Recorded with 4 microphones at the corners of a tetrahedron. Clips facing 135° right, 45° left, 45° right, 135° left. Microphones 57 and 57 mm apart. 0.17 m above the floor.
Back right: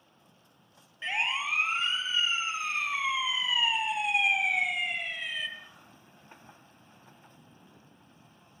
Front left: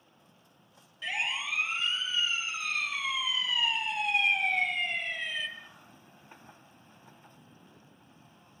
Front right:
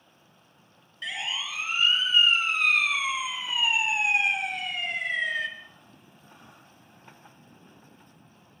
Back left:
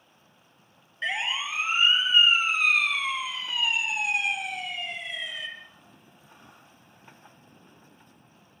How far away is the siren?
About 3 m.